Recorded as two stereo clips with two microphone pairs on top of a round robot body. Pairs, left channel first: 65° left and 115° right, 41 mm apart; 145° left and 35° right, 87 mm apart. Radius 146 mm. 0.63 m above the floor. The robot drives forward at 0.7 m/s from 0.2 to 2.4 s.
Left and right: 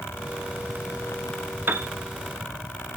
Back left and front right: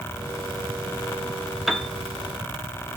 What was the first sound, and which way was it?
A piano, 125° right.